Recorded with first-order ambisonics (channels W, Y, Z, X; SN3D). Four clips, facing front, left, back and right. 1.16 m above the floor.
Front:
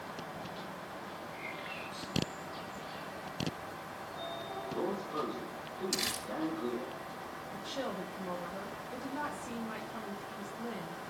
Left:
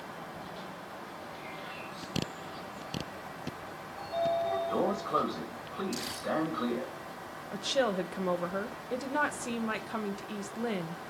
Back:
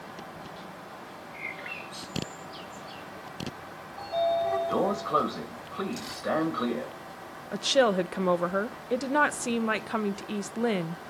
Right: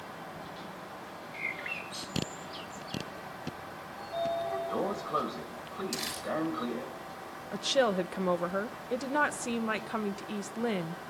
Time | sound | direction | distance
1.3 | a bird | 120° right | 2.5 m
4.0 | a sliding door | 175° left | 1.9 m
5.9 | crumpling | 25° right | 6.5 m
7.5 | a woman speaking | 170° right | 0.9 m